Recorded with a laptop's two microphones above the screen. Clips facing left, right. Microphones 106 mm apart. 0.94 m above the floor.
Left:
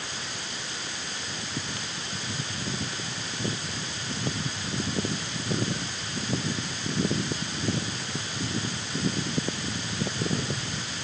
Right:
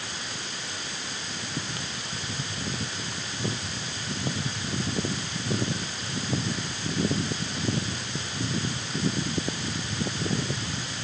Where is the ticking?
I don't hear ticking.